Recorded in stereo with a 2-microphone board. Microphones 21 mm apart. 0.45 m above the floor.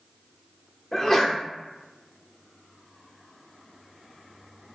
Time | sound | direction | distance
0.9 | a sneeze | 20° left (ahead or behind) | 0.8 m